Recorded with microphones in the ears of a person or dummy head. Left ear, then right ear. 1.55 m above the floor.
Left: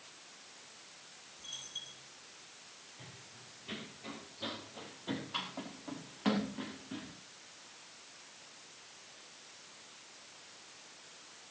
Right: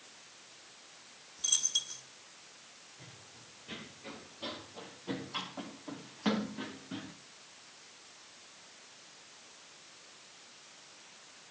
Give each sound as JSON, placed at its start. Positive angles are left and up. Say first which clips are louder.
{"t": 1.4, "sound": "a dropped coin", "louder": "right 13 dB", "side_deg": -60, "distance_m": 1.7}
{"t": 3.0, "sound": "running footsteps", "louder": "left 1 dB", "side_deg": 25, "distance_m": 6.5}